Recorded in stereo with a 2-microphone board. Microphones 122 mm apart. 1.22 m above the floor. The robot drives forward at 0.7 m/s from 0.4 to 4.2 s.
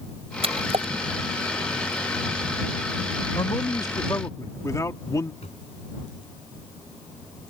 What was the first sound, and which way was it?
A splash, 60° right (ahead or behind).